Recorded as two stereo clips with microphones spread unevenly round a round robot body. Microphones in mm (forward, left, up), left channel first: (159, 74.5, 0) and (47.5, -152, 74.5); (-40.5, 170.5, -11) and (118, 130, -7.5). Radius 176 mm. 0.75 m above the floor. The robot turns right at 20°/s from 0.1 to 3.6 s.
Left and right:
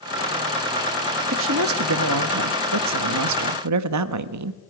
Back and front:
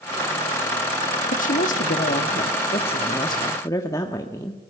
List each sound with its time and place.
1.3 s a woman speaking: 165° right, 1.2 m; by 4.6 s 120° right, 1.2 m